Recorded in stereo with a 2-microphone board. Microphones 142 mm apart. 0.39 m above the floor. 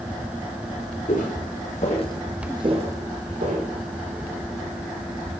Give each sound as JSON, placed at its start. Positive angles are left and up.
{"t": 1.1, "sound": "footsteps", "side_deg": 80, "distance_m": 1.9}